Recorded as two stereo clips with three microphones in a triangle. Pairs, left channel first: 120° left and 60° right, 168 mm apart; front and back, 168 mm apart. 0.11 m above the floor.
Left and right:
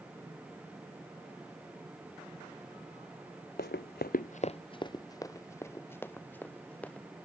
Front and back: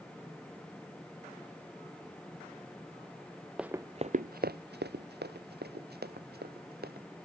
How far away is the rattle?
No rattle in this recording.